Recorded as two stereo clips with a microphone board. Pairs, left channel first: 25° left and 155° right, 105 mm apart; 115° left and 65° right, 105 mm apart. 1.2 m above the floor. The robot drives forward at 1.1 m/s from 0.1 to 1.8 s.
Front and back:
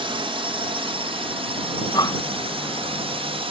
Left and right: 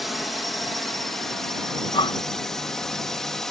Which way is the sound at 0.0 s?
155° right.